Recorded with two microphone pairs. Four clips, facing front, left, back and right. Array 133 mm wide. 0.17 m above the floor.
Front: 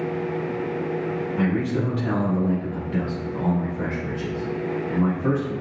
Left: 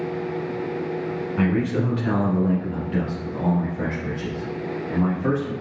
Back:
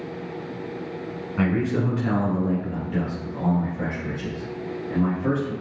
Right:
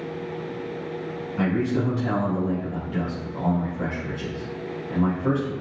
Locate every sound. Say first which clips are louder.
1.4 s a man speaking: left 1 dB, back 2 dB; 135° left, 1.4 m; by 5.5 s 65° left, 3 m